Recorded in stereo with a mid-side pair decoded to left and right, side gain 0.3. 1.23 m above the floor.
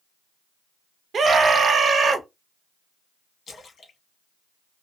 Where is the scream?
70° right, 0.8 m.